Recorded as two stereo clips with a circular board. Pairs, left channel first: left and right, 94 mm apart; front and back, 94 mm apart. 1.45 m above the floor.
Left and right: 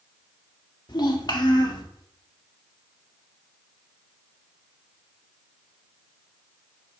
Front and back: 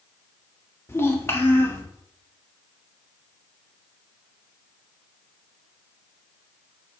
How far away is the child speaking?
About 1.5 m.